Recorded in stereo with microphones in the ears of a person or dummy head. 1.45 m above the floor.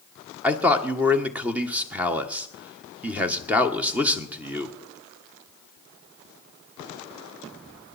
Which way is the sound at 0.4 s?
10° right (ahead or behind).